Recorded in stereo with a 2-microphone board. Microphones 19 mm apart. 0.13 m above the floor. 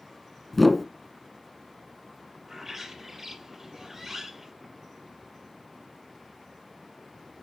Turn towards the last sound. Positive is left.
turn(degrees=-15)  # may be behind; listen again after turning